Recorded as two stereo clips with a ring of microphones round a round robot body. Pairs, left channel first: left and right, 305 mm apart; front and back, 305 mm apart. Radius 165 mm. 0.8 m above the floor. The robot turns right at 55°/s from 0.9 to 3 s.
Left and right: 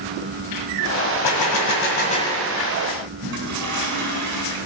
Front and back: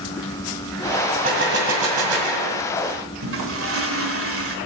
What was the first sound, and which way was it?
A gunshot, 110° left.